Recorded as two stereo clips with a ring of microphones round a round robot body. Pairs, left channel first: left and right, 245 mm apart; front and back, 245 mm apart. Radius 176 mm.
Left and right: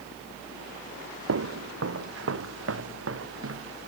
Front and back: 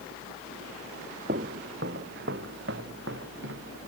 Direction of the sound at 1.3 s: 115° right.